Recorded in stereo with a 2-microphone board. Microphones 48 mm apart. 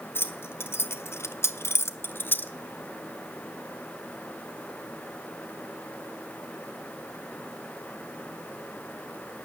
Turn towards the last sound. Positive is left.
turn(degrees=40)  # may be behind; listen again after turning